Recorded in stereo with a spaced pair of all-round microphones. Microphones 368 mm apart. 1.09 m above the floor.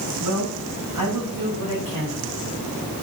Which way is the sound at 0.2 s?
55° right (ahead or behind).